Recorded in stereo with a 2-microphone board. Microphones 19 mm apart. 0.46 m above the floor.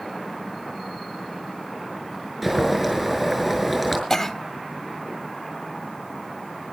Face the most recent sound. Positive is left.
turn(degrees=15)  # may be behind; listen again after turning